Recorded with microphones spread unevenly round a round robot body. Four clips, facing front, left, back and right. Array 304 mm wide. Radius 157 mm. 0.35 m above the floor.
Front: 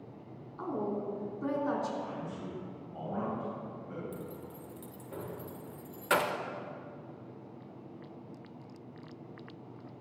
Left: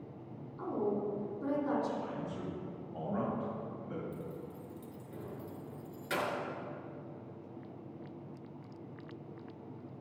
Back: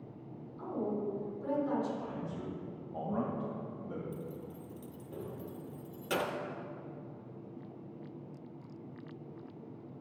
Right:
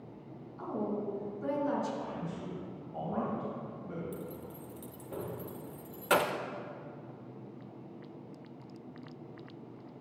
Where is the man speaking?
160° right, 3 m.